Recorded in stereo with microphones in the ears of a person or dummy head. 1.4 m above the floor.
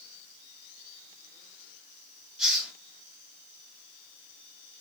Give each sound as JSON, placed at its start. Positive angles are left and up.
{"t": 2.4, "sound": "a hiss", "side_deg": 0, "distance_m": 2.5}